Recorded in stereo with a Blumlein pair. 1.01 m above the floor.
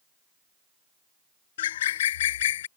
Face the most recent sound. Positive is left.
turn(degrees=60)